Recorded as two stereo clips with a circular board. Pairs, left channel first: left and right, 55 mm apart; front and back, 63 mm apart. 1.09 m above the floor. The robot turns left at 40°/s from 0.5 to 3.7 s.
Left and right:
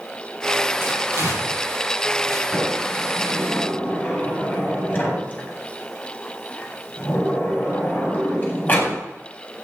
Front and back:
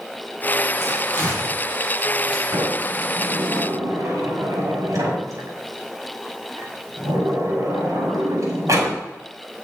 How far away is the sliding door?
About 5 m.